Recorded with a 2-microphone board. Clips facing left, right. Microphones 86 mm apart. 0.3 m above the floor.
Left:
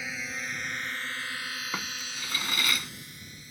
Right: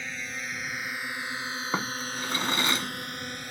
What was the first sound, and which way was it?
A drone, 5° left (ahead or behind).